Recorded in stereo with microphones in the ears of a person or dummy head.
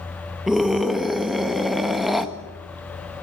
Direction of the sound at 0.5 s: Centre (ahead or behind).